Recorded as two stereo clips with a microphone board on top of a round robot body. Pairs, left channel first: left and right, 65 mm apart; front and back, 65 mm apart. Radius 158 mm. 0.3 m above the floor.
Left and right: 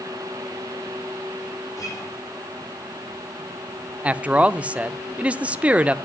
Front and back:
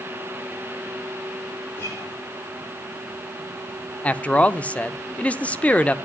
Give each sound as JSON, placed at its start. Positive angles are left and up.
{"t": 1.8, "sound": "a guitar", "azimuth_deg": 60, "distance_m": 8.5}
{"t": 4.0, "sound": "a man speaking", "azimuth_deg": -45, "distance_m": 0.9}